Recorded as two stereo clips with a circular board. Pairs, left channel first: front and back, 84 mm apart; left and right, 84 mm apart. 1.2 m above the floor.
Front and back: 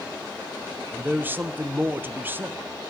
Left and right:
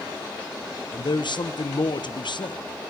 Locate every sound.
0.9 s a man speaking: 115° left, 0.6 m